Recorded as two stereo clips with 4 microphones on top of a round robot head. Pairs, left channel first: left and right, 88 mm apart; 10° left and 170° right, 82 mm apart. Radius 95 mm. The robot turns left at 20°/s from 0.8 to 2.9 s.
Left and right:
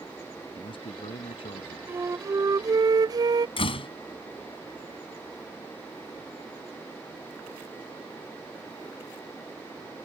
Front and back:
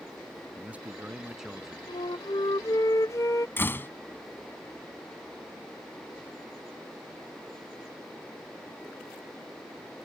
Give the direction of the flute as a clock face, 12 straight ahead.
1 o'clock.